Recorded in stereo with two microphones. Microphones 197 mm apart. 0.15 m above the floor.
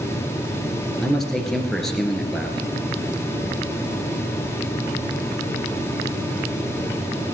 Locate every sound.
1.0 s a man speaking: centre (ahead or behind), 2.5 m